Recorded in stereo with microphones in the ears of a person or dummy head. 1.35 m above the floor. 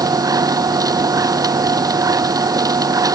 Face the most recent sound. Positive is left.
turn(degrees=-20)  # may be behind; listen again after turning